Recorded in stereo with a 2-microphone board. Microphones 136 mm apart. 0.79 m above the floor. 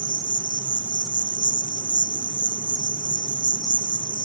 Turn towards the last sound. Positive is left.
turn(degrees=-30)  # may be behind; listen again after turning